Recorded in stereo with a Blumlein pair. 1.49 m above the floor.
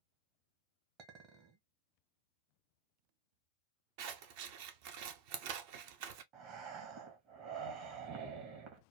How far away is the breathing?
About 1.1 m.